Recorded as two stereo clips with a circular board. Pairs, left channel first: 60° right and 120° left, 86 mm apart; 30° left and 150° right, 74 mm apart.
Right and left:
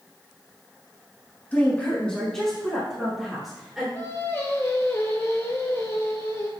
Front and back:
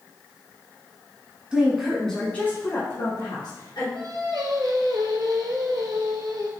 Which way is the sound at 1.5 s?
95° right.